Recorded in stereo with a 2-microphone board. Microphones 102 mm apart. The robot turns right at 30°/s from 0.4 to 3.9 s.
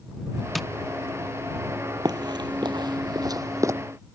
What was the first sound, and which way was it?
Tapping, centre (ahead or behind).